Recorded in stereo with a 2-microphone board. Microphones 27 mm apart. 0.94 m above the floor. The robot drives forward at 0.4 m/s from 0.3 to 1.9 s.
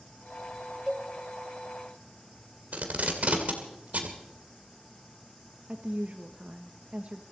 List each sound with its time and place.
0.9 s a cowbell: 25° right (ahead or behind), 0.9 m
2.7 s tape being pulled: 50° right (ahead or behind), 2 m
5.7 s a woman speaking: 50° right (ahead or behind), 1.1 m